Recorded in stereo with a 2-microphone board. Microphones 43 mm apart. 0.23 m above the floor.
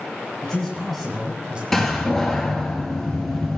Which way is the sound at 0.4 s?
15° left (ahead or behind).